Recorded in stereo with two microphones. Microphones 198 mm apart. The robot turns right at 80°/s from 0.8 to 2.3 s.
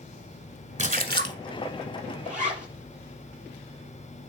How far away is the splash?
About 0.9 m.